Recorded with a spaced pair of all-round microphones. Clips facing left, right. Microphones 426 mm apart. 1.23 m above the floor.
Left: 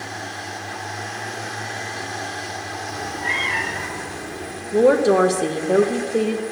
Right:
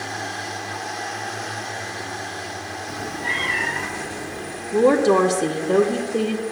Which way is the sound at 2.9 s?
40° right (ahead or behind).